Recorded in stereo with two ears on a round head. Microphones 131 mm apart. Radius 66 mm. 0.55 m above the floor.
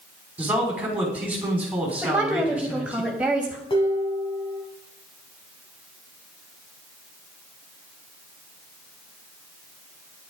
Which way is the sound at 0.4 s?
10° right (ahead or behind).